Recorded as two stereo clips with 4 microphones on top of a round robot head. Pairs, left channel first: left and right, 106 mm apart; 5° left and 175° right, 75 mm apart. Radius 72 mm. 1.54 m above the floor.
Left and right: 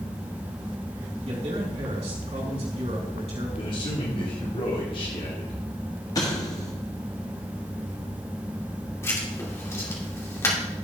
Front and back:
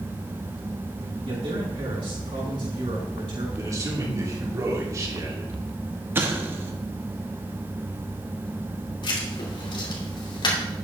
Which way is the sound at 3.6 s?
145° left.